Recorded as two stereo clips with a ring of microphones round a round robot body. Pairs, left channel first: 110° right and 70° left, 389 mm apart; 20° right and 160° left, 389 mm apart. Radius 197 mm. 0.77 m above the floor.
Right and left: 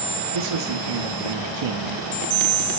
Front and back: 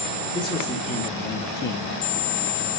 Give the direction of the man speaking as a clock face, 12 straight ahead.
10 o'clock.